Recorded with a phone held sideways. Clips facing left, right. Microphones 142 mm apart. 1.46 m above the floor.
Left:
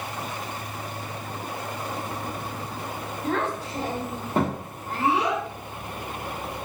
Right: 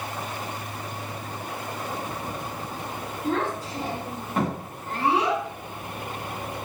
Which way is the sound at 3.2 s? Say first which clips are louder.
Right 1 dB; 60° left (ahead or behind).